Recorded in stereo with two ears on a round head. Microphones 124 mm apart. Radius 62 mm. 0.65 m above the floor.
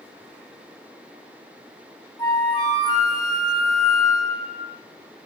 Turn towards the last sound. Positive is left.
turn(degrees=30)  # may be behind; listen again after turning